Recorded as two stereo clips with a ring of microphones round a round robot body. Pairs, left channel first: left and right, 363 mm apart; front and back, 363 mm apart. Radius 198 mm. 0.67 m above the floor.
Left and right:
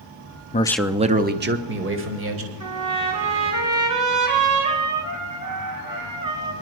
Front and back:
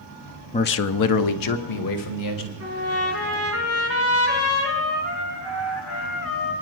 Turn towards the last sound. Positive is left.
turn(degrees=-50)